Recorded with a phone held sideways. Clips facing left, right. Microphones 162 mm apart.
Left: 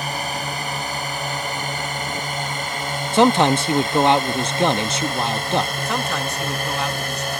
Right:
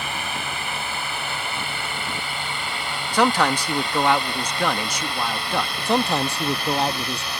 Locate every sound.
0.0 s a drone: 40° left (ahead or behind); by 7.4 s 50° left (ahead or behind)
3.1 s a man speaking: 25° left (ahead or behind)
5.8 s a man speaking: 30° right (ahead or behind)